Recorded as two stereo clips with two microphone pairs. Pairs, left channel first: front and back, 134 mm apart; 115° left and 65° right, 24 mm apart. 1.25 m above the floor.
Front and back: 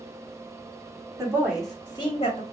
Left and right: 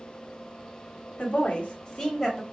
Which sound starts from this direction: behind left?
A woman speaking, at 1.2 s.